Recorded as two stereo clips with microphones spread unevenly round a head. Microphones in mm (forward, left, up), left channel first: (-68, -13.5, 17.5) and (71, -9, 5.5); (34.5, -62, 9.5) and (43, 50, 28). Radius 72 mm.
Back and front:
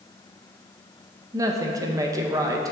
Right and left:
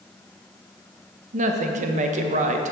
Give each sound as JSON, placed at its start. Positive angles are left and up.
{"t": 1.3, "sound": "a woman speaking", "azimuth_deg": 70, "distance_m": 0.8}